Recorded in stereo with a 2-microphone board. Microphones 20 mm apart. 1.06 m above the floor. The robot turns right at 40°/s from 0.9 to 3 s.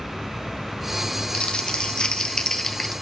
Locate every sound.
1.3 s crumpling: 100° left, 0.7 m; by 2.9 s 165° left, 0.7 m